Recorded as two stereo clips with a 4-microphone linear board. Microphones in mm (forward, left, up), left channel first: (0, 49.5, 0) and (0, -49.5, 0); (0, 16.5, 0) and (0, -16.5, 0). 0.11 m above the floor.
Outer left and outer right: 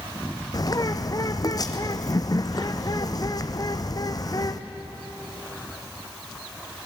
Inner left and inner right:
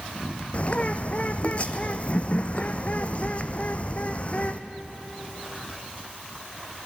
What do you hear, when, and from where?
0.5 s a bird: 40° left (ahead or behind), 1.1 m